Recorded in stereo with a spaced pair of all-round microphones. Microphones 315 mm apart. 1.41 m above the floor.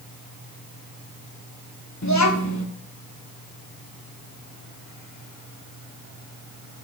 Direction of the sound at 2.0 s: 60° left (ahead or behind).